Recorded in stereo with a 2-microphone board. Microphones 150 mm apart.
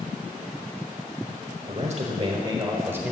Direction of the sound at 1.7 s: 50° right (ahead or behind).